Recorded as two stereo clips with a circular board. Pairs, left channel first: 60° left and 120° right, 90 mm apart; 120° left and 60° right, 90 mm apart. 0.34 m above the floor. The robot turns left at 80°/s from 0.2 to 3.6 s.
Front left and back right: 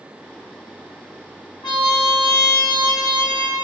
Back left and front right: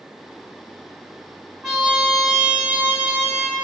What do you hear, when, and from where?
1.6 s a trumpet: 35° left, 1.4 m; by 3.6 s 125° right, 1.4 m